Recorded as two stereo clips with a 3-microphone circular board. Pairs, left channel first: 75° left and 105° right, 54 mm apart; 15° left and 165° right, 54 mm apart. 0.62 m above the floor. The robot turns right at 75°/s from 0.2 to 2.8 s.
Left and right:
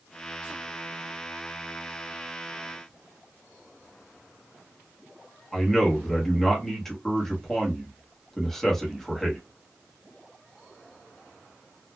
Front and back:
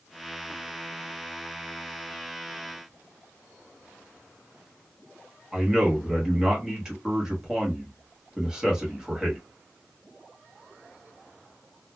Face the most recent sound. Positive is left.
turn(degrees=140)